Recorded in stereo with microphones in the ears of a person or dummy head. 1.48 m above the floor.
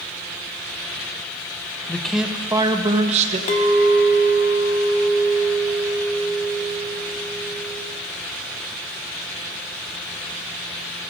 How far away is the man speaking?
About 0.7 m.